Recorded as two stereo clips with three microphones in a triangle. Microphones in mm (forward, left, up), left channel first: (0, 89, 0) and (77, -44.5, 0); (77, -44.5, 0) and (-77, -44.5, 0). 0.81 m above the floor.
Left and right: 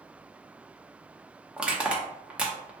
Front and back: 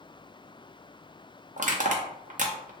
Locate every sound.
1.6 s crushing: 140° right, 0.6 m